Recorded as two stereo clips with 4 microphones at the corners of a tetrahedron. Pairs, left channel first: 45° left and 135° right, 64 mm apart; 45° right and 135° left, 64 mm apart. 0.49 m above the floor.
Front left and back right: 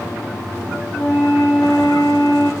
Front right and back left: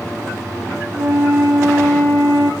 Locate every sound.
0.9 s a flute: 90° left, 5.5 m